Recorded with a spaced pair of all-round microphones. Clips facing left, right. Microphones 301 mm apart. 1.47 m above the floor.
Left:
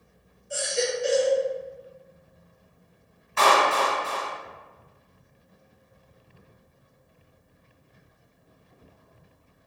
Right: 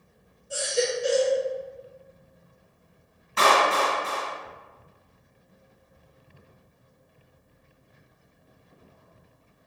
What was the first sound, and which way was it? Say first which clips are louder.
A baby crying: right 1 dB; 45° right (ahead or behind).